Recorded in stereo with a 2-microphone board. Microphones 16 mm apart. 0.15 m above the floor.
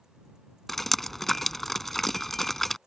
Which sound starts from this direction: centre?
Dripping, at 0.7 s.